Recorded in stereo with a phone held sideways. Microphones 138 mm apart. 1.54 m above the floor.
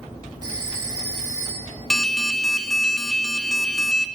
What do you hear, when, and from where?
0.4 s a phone ringing: 35° right (ahead or behind), 4 m
1.9 s an alarm: 5° left (ahead or behind), 0.5 m